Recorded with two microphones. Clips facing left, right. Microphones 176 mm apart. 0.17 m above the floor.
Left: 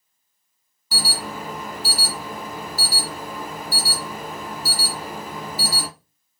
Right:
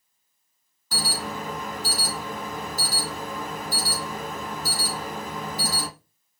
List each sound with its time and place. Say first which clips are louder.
0.9 s an alarm: even; 10° left (ahead or behind), 1.4 m